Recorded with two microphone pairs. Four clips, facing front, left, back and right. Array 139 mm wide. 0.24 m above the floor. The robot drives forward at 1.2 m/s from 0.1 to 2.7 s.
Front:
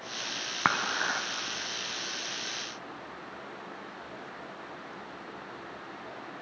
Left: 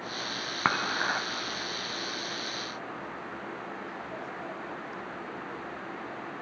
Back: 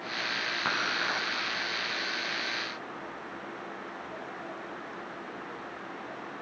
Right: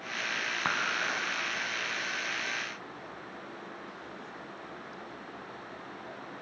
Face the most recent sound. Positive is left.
turn(degrees=165)